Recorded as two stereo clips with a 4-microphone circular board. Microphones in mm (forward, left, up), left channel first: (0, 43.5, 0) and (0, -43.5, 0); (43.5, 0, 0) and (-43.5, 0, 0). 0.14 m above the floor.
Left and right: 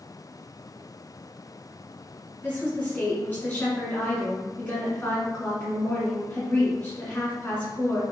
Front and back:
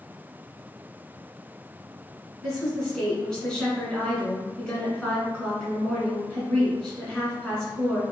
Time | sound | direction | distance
2.4 | a woman speaking | 65° left | 1.5 m